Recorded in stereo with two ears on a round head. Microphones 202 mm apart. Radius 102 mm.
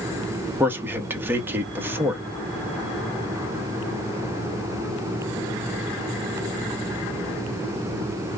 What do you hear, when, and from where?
0.6 s a man speaking: 10° right (ahead or behind), 1.0 m